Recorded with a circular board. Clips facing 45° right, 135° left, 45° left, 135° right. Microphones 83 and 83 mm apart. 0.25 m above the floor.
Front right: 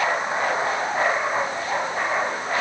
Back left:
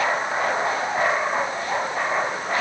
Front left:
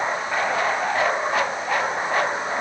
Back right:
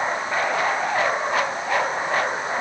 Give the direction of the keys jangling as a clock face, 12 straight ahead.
No keys jangling in this recording.